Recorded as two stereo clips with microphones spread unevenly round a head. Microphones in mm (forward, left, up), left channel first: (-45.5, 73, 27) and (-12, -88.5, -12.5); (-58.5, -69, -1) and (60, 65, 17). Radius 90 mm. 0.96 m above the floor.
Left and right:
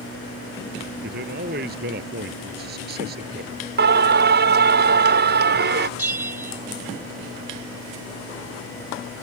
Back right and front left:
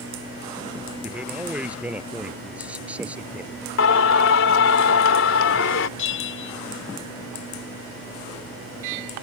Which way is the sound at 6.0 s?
155° right.